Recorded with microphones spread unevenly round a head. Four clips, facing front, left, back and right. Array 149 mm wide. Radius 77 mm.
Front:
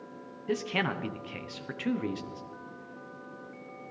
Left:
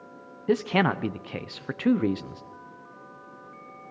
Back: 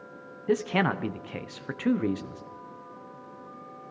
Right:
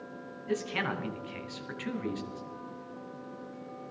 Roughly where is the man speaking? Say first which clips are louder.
Left 9 dB, back 6 dB; left.